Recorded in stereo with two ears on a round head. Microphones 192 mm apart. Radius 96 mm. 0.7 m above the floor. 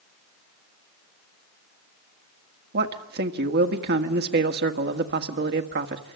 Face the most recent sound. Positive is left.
turn(degrees=-50)  # may be behind; listen again after turning